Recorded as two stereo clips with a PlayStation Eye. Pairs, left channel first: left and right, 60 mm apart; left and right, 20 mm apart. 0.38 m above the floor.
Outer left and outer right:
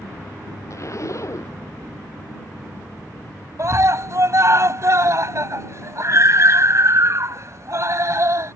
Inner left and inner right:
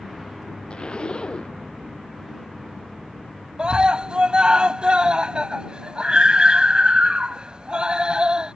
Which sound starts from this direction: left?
A zipper, at 0.7 s.